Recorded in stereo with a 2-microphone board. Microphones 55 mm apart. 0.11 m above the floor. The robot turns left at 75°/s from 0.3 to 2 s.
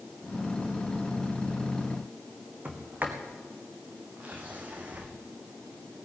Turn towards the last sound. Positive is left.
turn(degrees=-30)  # may be behind; listen again after turning